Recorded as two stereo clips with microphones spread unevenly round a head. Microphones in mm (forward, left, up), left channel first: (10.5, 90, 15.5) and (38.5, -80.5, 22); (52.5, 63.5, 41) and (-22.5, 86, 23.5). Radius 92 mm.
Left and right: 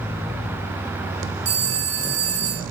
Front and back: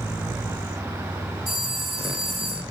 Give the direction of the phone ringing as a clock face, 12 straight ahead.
3 o'clock.